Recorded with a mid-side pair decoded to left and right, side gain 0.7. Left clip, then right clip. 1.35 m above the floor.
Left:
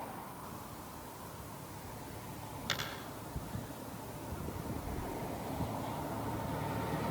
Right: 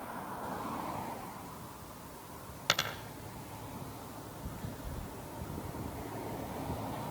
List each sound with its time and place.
2.7 s a dropped coin: 50° right, 3 m
4.8 s keys jangling: 20° right, 9 m